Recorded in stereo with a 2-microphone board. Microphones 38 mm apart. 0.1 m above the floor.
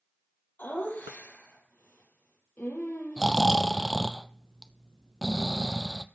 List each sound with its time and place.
0.6 s laughter: 60° left (ahead or behind), 3.5 m
3.2 s snoring: centre (ahead or behind), 0.5 m